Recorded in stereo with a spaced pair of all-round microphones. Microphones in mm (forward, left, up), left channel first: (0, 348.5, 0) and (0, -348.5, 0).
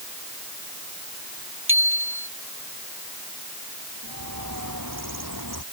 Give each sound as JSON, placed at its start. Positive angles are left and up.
{"t": 1.7, "sound": "a bicycle bell", "side_deg": -15}
{"t": 4.0, "sound": "a bird", "side_deg": -25}